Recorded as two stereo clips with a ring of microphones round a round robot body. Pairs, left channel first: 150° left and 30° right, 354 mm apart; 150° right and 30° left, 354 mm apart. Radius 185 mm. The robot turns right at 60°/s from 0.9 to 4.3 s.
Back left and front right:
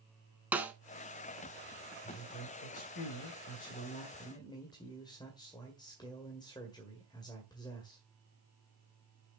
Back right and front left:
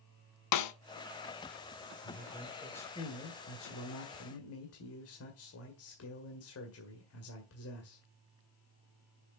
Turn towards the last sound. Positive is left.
turn(degrees=-140)